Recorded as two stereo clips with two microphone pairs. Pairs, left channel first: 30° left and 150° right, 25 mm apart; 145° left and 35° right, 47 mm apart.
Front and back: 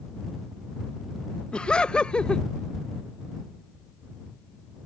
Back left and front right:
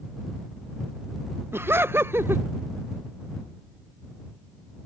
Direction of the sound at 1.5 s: 15° right.